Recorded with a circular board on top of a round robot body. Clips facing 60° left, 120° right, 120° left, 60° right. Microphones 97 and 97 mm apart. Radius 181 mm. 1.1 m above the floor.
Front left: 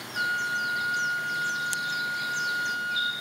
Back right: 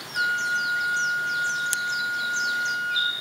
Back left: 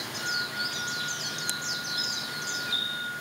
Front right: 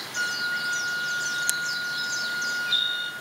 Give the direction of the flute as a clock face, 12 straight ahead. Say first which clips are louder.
Back right 3 dB, front right 6 dB; 2 o'clock.